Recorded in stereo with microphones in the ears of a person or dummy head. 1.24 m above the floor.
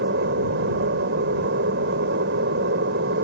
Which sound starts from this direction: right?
An aircraft, at 0.0 s.